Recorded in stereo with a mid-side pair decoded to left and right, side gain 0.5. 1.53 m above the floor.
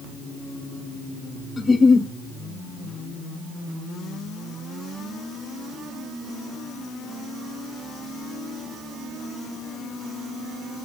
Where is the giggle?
30° left, 0.6 m.